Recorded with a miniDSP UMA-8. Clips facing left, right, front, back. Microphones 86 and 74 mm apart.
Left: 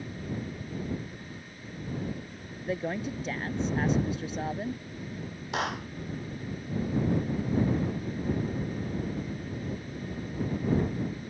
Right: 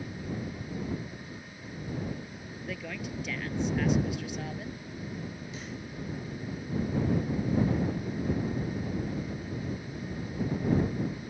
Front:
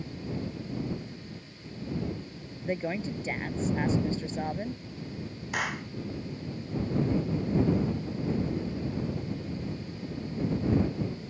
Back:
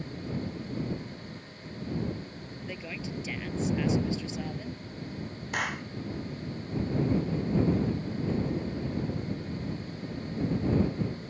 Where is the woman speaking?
40° left.